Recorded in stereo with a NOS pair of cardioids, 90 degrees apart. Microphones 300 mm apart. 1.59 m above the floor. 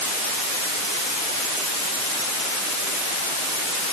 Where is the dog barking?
No dog barking in this recording.